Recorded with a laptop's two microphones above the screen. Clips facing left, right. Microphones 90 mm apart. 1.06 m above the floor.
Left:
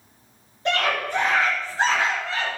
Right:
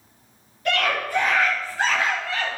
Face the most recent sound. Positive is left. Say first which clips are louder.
# even
turn(degrees=25)  # may be behind; listen again after turning